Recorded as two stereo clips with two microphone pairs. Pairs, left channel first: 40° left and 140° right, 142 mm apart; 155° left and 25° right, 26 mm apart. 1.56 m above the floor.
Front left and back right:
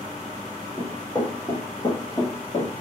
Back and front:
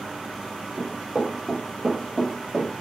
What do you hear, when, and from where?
0.8 s running footsteps: 40° right, 1.9 m; by 2.7 s 65° left, 1.9 m